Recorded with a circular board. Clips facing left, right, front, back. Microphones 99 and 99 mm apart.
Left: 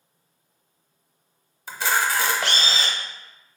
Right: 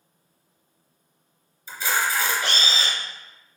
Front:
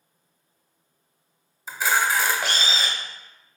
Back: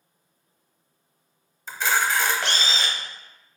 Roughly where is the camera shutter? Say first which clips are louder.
Left 2 dB, front 1 dB; left.